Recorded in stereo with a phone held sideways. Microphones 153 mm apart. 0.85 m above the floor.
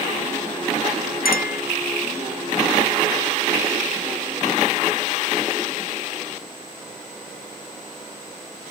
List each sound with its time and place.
1.2 s a clink: 90° left